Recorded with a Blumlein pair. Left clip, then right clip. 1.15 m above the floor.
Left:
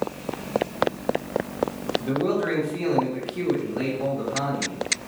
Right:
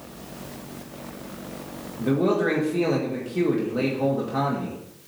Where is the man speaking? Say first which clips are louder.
Right 5 dB; 35° right, 1.9 m.